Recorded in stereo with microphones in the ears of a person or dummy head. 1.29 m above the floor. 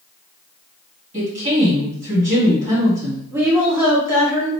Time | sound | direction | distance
1.1 | a woman speaking | 25° right (ahead or behind) | 1.9 m
3.3 | a woman speaking | 10° right (ahead or behind) | 1.1 m